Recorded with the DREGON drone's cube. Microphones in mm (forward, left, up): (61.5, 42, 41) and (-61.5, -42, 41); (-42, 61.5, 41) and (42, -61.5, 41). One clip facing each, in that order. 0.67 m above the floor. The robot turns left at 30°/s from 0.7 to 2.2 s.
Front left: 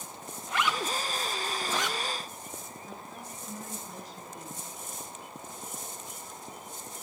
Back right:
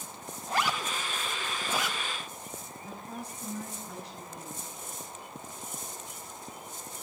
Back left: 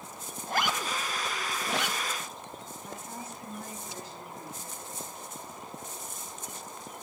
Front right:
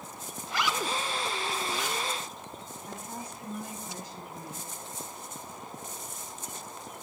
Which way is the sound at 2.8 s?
130° right.